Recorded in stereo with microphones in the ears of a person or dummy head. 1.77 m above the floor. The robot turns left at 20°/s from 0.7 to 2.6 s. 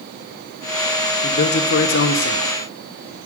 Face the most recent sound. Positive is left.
turn(degrees=70)  # may be behind; listen again after turning